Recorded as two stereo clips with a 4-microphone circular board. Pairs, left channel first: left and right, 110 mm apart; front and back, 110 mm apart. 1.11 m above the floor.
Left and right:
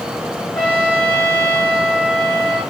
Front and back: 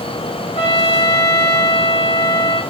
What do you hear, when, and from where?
0.6 s a trumpet: 15° left, 2.5 m